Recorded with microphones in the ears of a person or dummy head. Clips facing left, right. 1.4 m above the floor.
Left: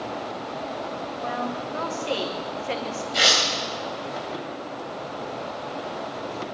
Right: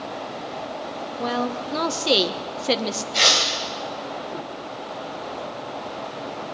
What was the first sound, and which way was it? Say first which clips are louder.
A woman speaking: right 6 dB; 55° right (ahead or behind).